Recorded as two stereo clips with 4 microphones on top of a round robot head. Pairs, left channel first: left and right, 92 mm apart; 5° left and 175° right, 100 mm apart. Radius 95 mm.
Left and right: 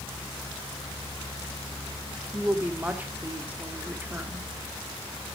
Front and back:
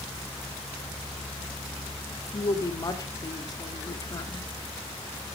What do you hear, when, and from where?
2.3 s a woman speaking: 25° right, 1.7 m